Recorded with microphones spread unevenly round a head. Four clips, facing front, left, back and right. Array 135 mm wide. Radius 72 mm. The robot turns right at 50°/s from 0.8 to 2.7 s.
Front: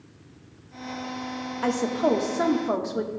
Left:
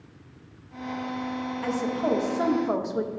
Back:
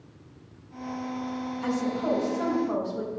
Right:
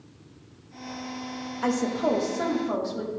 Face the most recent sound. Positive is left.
turn(degrees=35)